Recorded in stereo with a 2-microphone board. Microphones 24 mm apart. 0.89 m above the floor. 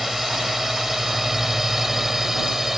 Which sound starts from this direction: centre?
A drone, at 0.0 s.